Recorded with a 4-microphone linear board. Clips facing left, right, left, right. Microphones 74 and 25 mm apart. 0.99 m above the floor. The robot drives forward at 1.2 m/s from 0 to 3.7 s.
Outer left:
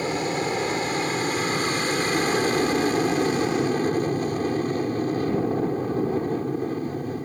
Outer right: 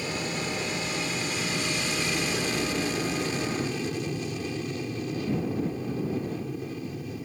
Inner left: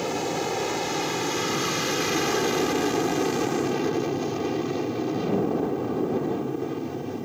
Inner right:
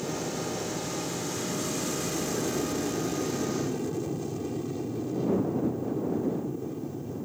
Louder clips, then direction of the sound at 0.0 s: Outer left 7 dB, inner left 6 dB; 45° left (ahead or behind).